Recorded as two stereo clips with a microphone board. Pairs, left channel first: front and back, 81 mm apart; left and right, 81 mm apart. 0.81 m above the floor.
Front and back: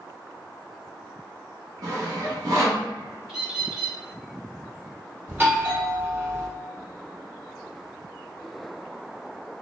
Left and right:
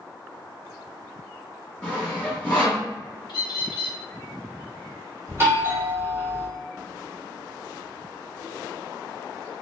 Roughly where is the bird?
Left.